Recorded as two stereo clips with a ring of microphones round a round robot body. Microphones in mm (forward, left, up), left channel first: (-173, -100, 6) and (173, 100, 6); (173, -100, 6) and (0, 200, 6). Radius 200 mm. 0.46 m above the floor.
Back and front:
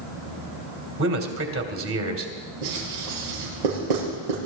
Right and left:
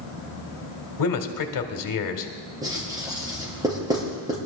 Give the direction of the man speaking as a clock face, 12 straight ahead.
1 o'clock.